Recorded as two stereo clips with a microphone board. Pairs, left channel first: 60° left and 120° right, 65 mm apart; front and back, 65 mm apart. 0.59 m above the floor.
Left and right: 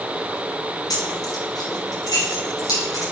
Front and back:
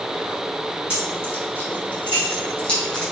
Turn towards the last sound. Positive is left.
turn(degrees=75)